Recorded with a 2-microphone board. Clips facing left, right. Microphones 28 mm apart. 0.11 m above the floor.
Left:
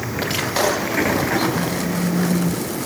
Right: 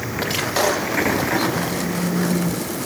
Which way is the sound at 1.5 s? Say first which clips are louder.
Left 1 dB; 5° right (ahead or behind).